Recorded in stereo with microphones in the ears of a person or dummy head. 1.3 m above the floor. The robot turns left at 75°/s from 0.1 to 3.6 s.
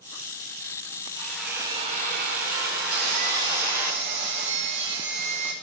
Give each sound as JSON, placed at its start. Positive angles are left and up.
{"t": 1.1, "sound": "a drill", "azimuth_deg": 20, "distance_m": 5.5}
{"t": 2.9, "sound": "sawing", "azimuth_deg": -75, "distance_m": 5.0}